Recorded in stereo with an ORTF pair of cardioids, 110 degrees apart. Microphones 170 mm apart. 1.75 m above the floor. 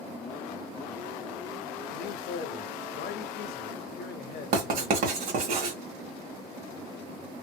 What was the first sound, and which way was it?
A man speaking, 65° left.